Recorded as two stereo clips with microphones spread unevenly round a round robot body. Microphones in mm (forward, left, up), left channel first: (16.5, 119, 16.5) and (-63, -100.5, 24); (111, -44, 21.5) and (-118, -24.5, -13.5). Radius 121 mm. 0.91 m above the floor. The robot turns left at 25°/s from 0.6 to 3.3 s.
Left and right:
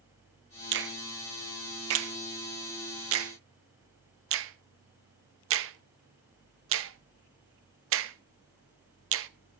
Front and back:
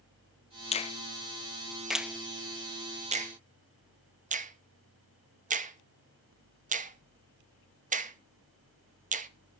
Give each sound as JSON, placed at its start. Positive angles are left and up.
{"t": 0.7, "sound": "a finger snap", "azimuth_deg": -70, "distance_m": 0.7}